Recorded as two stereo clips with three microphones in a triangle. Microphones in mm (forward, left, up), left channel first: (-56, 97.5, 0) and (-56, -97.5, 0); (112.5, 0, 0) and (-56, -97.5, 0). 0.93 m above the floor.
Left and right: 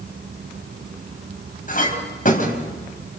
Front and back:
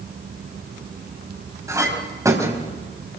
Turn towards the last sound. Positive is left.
turn(degrees=135)